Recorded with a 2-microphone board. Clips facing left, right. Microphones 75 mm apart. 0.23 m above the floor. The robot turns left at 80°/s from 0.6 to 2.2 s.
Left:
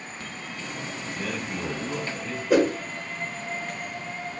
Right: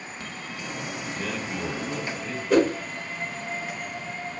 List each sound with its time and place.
1.1 s a man speaking: 15° left (ahead or behind), 1.1 m; by 2.4 s 10° right (ahead or behind), 1.1 m
2.5 s a whoosh: 5° left (ahead or behind), 1.3 m